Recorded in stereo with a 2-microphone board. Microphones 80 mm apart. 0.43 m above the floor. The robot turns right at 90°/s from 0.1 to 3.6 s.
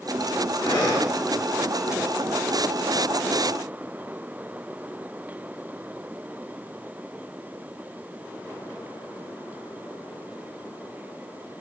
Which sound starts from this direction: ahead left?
Breathing, at 0.6 s.